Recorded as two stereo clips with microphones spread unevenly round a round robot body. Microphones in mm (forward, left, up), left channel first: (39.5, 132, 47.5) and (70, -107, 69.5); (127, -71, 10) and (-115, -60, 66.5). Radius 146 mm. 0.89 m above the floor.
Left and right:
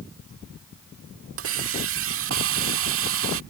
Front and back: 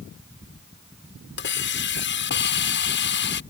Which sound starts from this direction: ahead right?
A hiss, at 1.4 s.